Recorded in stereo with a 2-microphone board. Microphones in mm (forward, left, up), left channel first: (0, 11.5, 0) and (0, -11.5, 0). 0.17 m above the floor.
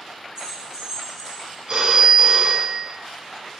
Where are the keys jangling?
35° right (ahead or behind), 2 m; by 1.6 s 10° right (ahead or behind), 1.5 m.